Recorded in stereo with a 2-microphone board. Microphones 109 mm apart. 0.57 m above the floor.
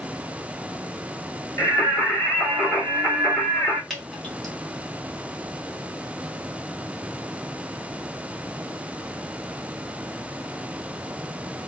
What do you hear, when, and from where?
1.6 s singing: 20° left (ahead or behind), 1.7 m
3.9 s dripping: 5° left (ahead or behind), 1.2 m